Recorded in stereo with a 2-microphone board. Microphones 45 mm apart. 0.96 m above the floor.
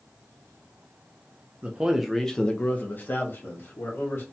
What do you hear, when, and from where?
1.6 s a man speaking: 30° right (ahead or behind), 0.6 m; by 4.2 s 55° left (ahead or behind), 1.4 m